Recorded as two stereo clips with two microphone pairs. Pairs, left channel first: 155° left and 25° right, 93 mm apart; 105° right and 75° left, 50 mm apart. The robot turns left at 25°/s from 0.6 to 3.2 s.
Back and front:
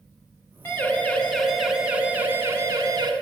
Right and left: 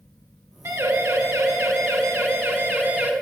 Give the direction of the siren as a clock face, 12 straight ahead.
9 o'clock.